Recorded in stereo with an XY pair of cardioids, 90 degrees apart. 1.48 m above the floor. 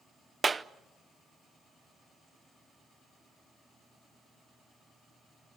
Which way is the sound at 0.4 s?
30° right.